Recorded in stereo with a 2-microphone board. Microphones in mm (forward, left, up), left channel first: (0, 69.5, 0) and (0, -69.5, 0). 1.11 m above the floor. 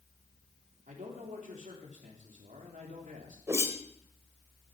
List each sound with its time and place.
0.9 s a man speaking: 65° right (ahead or behind), 3.5 m
3.5 s a whoosh: 20° right (ahead or behind), 1.4 m